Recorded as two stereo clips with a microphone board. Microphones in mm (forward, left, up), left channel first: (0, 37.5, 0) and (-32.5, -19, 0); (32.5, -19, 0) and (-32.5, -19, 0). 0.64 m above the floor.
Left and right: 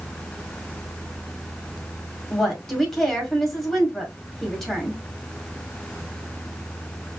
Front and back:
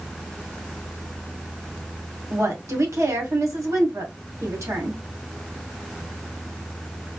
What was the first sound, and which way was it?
A woman speaking, 145° left.